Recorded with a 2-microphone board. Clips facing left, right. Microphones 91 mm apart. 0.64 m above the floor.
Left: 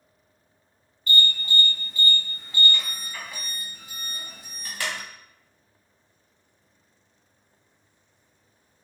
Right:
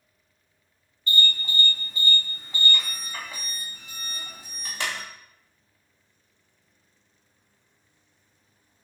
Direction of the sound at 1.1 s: 25° right (ahead or behind).